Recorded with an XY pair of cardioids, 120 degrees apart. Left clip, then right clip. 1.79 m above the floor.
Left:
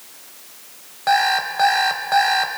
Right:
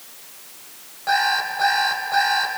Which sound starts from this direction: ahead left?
An alarm clock, at 1.1 s.